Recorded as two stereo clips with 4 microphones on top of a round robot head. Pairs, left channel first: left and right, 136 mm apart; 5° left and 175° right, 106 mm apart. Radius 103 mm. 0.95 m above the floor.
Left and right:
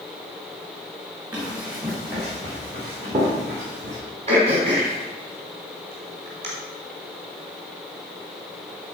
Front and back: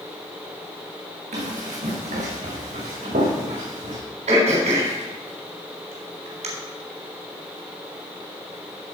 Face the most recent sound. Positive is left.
turn(degrees=-145)